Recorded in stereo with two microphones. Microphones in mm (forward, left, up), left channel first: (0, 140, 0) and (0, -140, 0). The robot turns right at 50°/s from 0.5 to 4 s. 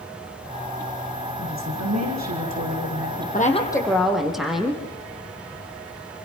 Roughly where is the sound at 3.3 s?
Behind left.